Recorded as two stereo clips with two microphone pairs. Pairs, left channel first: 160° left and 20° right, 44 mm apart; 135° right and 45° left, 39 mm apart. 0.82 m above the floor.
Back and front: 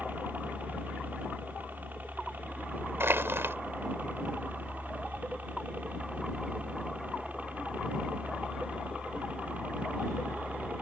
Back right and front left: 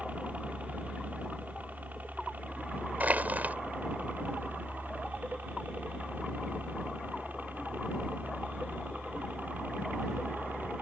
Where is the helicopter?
15° left; by 10.8 s 35° left.